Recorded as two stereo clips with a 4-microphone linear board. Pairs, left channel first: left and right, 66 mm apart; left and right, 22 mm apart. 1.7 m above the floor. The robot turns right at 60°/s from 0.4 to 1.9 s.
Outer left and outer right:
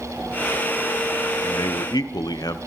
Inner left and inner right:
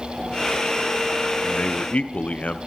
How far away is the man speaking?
About 1.1 m.